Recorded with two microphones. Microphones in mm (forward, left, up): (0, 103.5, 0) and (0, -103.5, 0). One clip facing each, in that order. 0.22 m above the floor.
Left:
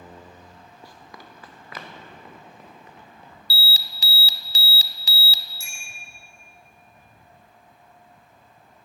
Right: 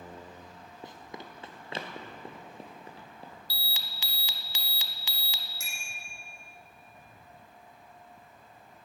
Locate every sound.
0.8 s running footsteps: 20° right (ahead or behind), 1.5 m; by 3.4 s 35° right (ahead or behind), 3.5 m
3.5 s an alarm: 40° left (ahead or behind), 1.1 m
5.6 s a bicycle bell: 70° right (ahead or behind), 7 m